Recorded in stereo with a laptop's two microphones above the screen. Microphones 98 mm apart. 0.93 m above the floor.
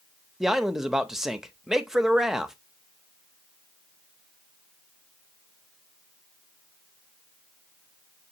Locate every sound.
0.4 s a man speaking: 5° right (ahead or behind), 0.6 m